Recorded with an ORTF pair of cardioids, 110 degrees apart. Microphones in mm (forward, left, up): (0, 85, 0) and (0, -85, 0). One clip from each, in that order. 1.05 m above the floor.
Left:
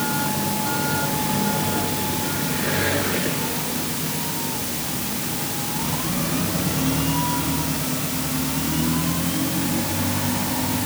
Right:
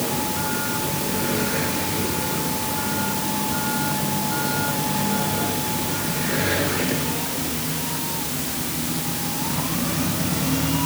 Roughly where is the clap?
No clap in this recording.